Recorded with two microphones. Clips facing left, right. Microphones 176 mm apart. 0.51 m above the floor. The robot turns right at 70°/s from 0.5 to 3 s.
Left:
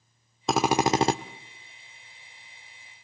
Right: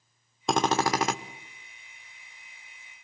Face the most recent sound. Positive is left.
turn(degrees=175)